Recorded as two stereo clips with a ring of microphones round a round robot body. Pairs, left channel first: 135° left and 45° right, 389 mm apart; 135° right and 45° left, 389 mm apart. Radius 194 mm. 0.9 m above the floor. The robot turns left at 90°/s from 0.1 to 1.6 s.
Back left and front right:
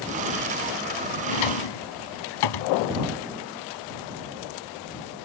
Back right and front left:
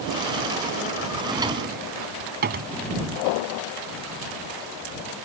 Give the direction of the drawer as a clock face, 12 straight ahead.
7 o'clock.